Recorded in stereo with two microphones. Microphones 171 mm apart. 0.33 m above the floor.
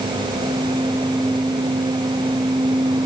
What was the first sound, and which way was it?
Only background noise.